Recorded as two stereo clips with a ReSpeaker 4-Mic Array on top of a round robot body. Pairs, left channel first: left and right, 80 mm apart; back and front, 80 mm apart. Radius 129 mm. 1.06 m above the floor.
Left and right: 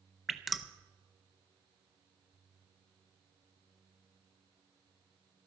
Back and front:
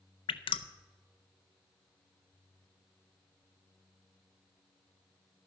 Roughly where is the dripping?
Behind.